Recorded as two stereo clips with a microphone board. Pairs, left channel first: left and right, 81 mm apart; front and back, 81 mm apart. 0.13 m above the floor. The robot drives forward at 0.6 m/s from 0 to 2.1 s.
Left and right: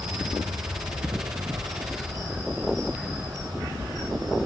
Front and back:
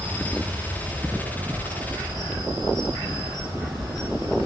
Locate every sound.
0.0 s an insect: 115° right, 1.8 m; by 4.5 s 140° right, 2.5 m